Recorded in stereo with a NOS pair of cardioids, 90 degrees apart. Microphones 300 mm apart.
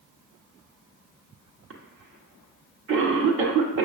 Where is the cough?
50° right, 1.1 m.